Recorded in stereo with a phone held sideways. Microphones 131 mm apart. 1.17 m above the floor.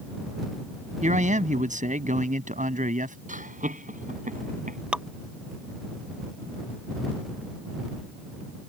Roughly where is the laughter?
Right.